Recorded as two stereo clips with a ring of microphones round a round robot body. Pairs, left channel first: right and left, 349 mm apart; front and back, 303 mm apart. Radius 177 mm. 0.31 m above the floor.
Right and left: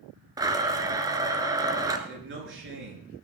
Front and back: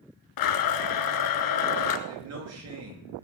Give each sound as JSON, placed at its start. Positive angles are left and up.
{"t": 0.4, "sound": "a blender", "azimuth_deg": 10, "distance_m": 1.3}
{"t": 2.1, "sound": "a man speaking", "azimuth_deg": 145, "distance_m": 5.5}